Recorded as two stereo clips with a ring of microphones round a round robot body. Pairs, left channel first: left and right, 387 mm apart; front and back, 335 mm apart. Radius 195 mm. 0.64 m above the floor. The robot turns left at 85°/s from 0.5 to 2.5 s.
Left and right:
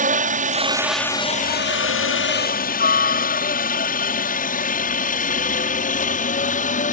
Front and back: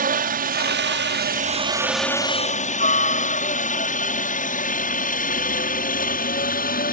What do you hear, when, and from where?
0.0 s a helicopter: 140° right; by 6.9 s 35° left